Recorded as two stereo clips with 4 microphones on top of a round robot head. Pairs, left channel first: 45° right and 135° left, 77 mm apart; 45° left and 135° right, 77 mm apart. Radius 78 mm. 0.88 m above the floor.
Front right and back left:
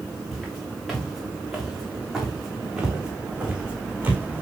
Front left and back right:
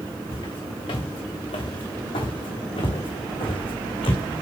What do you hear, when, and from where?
0.3 s footsteps: 40° left, 5.5 m; by 4.4 s 65° left, 3.5 m